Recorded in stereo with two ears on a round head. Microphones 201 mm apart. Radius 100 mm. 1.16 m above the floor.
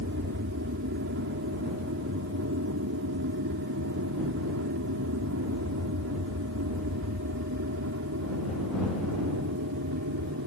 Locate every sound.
0.0 s an aircraft: 55° right (ahead or behind); by 10.5 s 65° right (ahead or behind)